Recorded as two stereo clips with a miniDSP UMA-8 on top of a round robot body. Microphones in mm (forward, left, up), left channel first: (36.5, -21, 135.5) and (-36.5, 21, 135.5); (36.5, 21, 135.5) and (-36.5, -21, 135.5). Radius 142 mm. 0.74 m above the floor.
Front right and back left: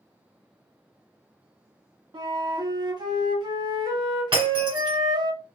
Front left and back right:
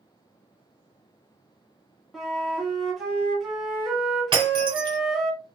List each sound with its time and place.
2.1 s a flute: 120° left, 1.1 m
4.3 s breaking glass: 175° left, 1.1 m